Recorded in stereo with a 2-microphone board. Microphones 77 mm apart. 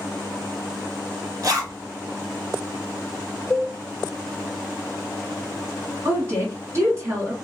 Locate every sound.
1.4 s a zipper: 50° right (ahead or behind), 1.5 m
3.5 s a cowbell: 5° left (ahead or behind), 0.7 m
6.0 s a woman speaking: 35° right (ahead or behind), 1.9 m